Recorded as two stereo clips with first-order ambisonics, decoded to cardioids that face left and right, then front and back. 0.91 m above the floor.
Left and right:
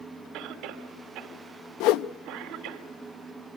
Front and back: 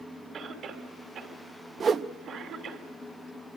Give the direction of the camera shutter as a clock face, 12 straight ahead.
I don't hear a camera shutter.